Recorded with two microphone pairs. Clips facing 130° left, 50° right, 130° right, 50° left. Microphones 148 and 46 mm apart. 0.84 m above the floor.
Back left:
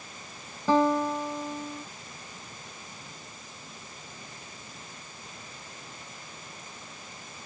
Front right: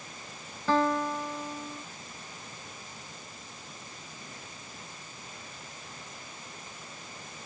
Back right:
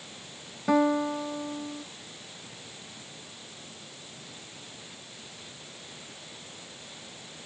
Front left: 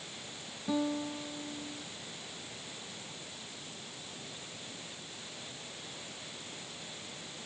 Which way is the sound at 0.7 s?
155° right.